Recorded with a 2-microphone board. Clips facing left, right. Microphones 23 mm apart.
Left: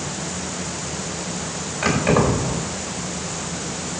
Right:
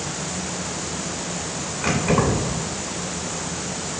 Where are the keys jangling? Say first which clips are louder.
Left 2 dB; 75° left (ahead or behind), 5.5 m.